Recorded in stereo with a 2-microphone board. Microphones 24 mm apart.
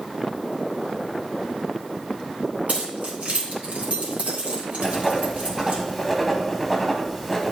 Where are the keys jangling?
65° right (ahead or behind), 2.5 m.